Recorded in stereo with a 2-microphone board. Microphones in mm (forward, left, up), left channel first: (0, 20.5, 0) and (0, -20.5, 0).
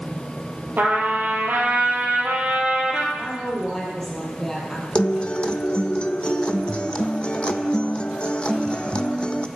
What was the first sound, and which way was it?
A trumpet, 55° right (ahead or behind).